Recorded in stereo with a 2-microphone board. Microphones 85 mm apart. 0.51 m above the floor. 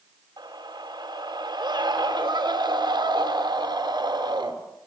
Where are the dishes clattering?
I don't hear dishes clattering.